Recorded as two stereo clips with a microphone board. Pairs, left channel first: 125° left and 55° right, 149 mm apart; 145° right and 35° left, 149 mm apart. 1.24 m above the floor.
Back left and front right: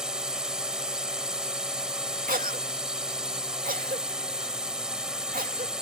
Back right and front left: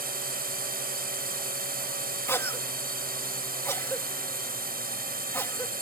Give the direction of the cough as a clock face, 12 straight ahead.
2 o'clock.